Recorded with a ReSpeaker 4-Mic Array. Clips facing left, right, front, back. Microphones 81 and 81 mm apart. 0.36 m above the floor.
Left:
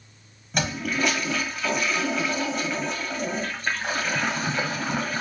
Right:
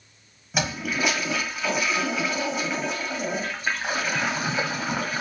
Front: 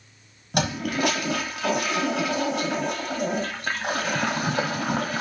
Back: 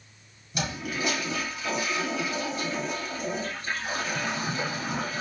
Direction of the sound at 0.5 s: 5° right.